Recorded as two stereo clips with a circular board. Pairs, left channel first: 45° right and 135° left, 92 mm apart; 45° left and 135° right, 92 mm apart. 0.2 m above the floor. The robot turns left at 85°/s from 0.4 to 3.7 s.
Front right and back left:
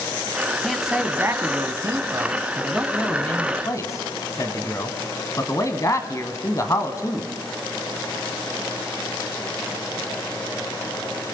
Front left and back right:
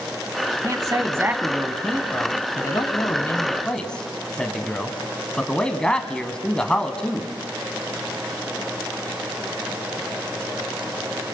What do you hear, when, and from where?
0.6 s a man speaking: 130° right, 1.6 m; by 7.3 s 30° right, 1.6 m